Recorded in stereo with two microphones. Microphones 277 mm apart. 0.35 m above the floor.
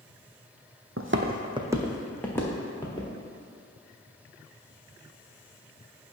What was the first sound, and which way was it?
Footsteps, 55° right (ahead or behind).